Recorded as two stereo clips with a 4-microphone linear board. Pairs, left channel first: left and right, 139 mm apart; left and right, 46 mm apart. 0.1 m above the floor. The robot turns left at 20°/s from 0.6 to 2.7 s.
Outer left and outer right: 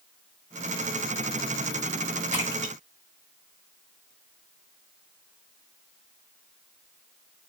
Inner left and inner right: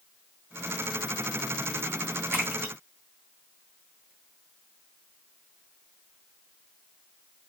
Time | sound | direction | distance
2.3 | a splash | 55° right (ahead or behind) | 1.5 m